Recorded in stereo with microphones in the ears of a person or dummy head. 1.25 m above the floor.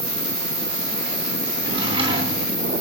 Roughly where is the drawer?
Right.